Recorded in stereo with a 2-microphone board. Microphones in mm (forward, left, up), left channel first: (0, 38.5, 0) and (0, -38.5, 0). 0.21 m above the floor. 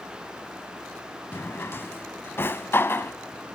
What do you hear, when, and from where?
1.3 s a drawer: 30° left (ahead or behind), 0.6 m